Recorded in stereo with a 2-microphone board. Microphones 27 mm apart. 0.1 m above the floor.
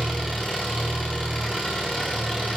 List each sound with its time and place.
0.0 s an engine running: centre (ahead or behind), 9.5 m